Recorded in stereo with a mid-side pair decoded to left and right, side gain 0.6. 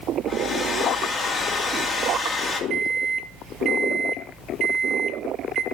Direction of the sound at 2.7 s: 50° right.